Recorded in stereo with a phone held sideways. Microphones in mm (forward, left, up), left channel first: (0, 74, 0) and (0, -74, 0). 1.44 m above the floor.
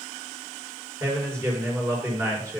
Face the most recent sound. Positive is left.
turn(degrees=-20)  # may be behind; listen again after turning